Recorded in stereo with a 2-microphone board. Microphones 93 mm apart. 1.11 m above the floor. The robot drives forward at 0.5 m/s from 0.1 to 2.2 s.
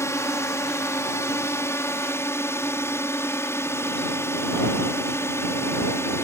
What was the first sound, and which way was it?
A drone, 30° left (ahead or behind).